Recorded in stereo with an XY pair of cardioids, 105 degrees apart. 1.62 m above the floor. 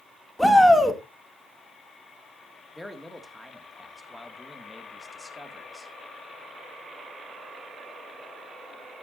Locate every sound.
0.4 s a shout: straight ahead, 2.5 m
2.7 s a man speaking: 5° left, 1.9 m